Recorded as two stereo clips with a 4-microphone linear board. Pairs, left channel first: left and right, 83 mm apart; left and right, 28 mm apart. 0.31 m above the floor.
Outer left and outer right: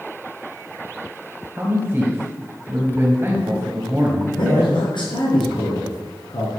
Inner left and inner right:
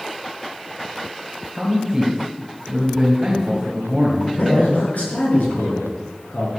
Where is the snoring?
I don't hear snoring.